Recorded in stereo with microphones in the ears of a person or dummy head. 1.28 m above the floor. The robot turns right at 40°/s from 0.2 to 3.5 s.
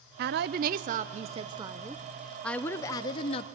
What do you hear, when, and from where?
0.2 s a woman speaking: 85° right, 0.6 m; by 3.5 s 45° left, 0.6 m